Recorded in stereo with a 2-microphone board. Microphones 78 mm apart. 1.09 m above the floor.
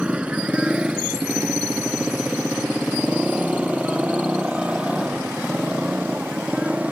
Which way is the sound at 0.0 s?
15° right (ahead or behind).